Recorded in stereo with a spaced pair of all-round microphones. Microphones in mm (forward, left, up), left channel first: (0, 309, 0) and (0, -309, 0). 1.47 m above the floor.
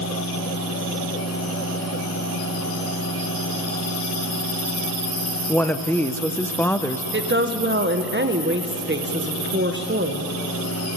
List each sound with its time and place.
0.0 s a fan: 25° left (ahead or behind), 1.6 m
5.5 s a woman speaking: 5° left (ahead or behind), 0.6 m
7.1 s a woman speaking: 20° right (ahead or behind), 1.2 m